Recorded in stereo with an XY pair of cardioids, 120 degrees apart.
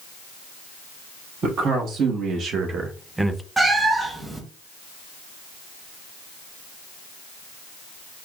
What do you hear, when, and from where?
1.4 s a man speaking: 65° right, 1.7 m; by 3.4 s 10° left, 0.6 m
3.6 s a cat meowing: 15° right, 1.2 m